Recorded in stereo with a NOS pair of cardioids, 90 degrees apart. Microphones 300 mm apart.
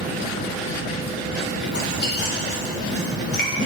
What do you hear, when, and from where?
1.7 s chewing: 35° left, 2.5 m